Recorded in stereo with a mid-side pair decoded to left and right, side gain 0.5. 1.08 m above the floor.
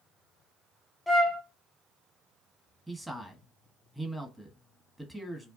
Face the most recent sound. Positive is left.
turn(degrees=-10)